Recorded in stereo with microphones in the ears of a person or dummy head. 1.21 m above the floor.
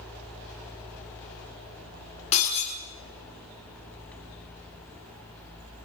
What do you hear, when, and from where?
2.3 s breaking glass: 35° left (ahead or behind), 5.5 m